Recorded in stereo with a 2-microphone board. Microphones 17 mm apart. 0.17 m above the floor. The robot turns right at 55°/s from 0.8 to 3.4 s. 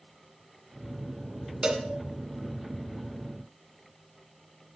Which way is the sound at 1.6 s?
40° right (ahead or behind).